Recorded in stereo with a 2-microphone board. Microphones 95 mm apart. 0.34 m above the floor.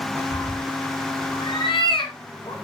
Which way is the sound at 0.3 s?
70° left (ahead or behind).